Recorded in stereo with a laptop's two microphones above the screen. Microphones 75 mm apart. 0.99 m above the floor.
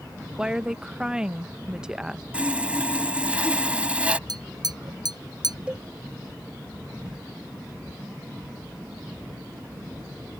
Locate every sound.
0.4 s a woman speaking: 10° right (ahead or behind)
2.3 s sawing: 15° right (ahead or behind)
4.3 s tapping: 65° right (ahead or behind)
5.7 s a cowbell: 15° right (ahead or behind)